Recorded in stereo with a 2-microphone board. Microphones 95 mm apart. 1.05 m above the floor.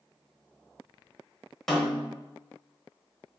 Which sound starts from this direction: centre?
A snare drum, at 1.7 s.